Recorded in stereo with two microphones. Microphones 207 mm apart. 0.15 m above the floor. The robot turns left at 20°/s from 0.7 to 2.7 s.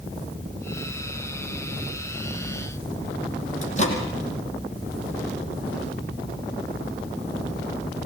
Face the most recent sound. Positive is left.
turn(degrees=35)  # may be behind; listen again after turning